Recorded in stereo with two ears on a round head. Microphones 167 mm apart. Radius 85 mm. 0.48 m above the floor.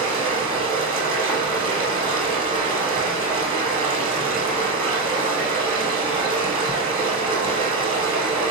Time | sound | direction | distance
0.0 | running water | 30° right (ahead or behind) | 1.7 m